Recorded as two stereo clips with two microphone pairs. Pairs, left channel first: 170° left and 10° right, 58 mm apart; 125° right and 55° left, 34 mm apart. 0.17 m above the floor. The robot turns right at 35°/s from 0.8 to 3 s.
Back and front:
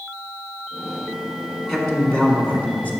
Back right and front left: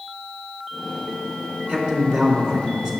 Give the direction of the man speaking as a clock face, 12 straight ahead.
9 o'clock.